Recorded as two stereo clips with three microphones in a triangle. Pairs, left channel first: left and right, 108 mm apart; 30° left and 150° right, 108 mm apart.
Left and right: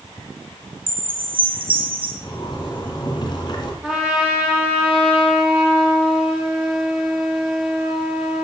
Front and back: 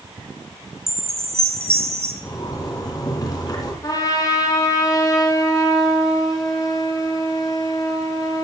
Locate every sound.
0.9 s a chime: 125° right, 1.8 m
2.2 s a zipper: 70° left, 1.9 m
3.8 s a trumpet: 10° right, 2 m